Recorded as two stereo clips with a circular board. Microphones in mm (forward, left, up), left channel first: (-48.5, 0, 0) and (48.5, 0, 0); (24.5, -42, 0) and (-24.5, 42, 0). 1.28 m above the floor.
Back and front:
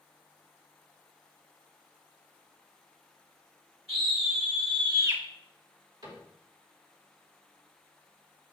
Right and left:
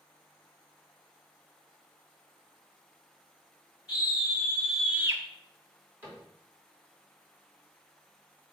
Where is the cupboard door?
50° left, 3.5 m.